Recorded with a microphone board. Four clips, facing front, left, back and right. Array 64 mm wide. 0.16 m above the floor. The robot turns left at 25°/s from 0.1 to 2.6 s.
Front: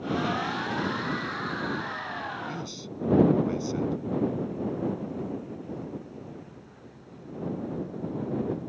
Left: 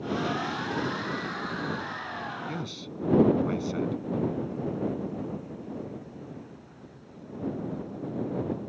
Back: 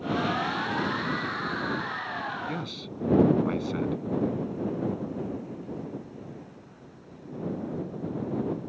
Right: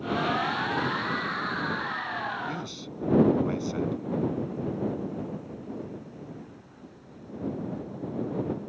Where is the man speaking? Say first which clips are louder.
Right 1 dB, back 2 dB; 175° left; by 4.0 s 170° left.